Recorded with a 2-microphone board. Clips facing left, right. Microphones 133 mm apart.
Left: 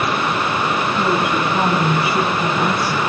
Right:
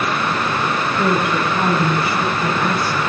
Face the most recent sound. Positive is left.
turn(degrees=10)  # may be behind; listen again after turning